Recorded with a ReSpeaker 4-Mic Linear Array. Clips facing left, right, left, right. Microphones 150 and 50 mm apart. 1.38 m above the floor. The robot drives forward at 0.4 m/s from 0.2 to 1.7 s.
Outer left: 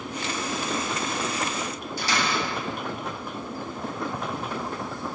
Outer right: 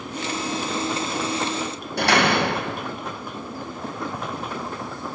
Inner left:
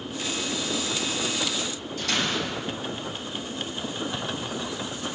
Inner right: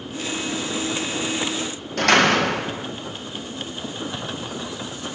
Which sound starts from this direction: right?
A door slam, at 2.0 s.